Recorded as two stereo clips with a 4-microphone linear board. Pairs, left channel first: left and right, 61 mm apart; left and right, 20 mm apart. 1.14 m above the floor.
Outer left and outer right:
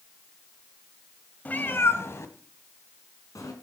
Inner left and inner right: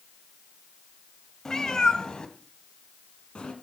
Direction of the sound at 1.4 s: 25° left (ahead or behind).